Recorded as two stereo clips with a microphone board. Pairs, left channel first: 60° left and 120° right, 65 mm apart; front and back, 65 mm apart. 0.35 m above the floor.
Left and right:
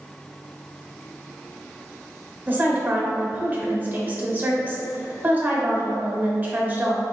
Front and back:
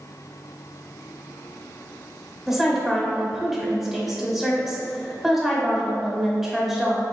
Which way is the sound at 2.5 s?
100° right.